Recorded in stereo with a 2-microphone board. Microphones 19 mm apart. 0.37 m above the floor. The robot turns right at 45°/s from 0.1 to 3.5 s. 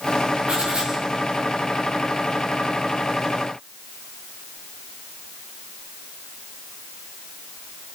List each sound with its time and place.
0.5 s writing: 85° right, 7 m; by 0.9 s 70° right (ahead or behind), 7 m